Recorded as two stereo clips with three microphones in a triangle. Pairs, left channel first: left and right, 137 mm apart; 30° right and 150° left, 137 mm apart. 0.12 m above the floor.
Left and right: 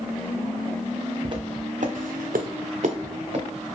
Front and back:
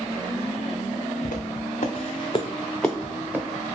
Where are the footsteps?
35° right, 0.9 m; by 3.8 s 140° right, 1.0 m.